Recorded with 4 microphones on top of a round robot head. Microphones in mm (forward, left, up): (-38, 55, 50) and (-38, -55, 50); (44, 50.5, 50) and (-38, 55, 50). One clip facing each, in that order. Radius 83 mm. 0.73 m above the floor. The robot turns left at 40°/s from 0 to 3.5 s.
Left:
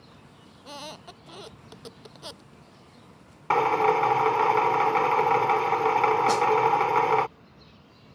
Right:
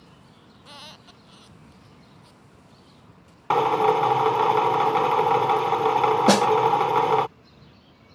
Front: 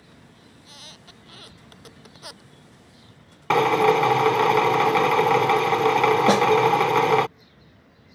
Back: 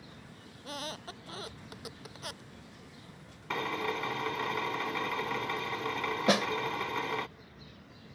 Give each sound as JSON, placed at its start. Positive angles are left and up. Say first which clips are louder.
{"t": 0.5, "sound": "a squeak", "louder": "left 6 dB, back 11 dB", "azimuth_deg": 150}
{"t": 3.5, "sound": "a drill", "louder": "right 2 dB, front 16 dB", "azimuth_deg": -15}
{"t": 6.3, "sound": "a snare drum", "louder": "right 5 dB, front 5 dB", "azimuth_deg": -75}